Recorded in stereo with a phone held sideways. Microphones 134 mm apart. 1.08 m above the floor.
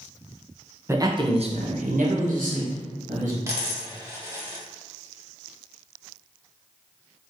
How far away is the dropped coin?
About 0.6 m.